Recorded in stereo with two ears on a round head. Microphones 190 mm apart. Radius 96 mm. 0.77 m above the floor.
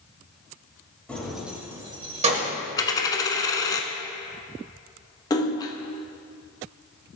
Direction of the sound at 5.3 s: 15° left (ahead or behind).